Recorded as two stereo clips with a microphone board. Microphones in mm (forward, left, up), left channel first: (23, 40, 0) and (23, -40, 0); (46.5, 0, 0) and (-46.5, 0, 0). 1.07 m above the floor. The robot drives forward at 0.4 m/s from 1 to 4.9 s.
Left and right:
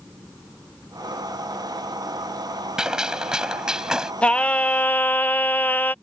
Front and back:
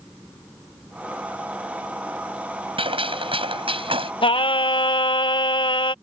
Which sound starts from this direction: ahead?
Singing, at 4.2 s.